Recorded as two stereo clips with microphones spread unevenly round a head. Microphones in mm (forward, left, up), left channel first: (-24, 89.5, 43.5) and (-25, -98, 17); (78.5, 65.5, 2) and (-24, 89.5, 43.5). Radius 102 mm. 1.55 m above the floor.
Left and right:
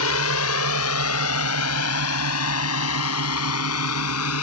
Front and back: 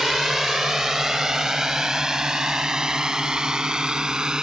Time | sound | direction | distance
0.0 | a drone | 80° left | ?